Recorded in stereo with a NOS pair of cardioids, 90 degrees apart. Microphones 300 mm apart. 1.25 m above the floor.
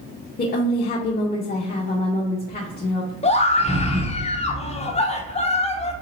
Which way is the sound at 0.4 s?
30° left.